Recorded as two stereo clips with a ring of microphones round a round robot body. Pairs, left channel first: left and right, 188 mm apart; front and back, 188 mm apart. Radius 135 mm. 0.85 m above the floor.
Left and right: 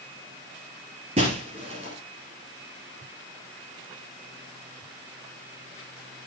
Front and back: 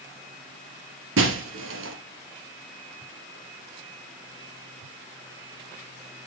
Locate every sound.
1.2 s breaking glass: 160° right, 1.9 m